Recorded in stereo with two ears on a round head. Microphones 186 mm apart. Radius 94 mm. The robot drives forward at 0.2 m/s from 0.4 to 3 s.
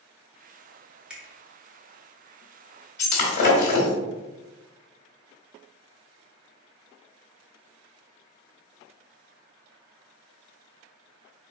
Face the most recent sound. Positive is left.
turn(degrees=50)  # may be behind; listen again after turning